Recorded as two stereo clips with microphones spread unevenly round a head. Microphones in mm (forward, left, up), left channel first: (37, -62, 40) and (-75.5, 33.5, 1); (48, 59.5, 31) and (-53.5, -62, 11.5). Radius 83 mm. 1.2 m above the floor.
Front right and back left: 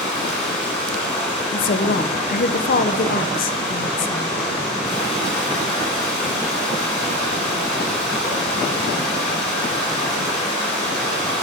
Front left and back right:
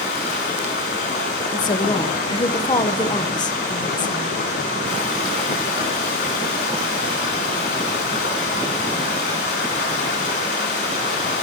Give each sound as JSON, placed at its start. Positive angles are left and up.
{"t": 0.0, "sound": "running water", "azimuth_deg": 40, "distance_m": 2.5}
{"t": 1.5, "sound": "a woman speaking", "azimuth_deg": -10, "distance_m": 0.7}